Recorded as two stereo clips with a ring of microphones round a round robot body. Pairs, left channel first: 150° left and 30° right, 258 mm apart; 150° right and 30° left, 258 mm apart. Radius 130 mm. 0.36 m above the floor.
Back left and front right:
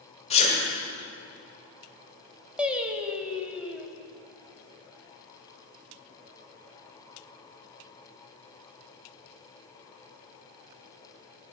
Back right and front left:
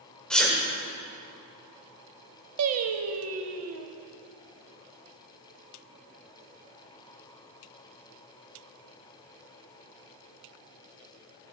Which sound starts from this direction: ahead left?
Singing, at 2.6 s.